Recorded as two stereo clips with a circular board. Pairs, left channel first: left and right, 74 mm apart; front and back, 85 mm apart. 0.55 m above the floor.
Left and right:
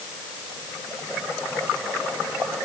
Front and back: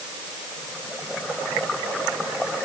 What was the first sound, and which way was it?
Only background noise.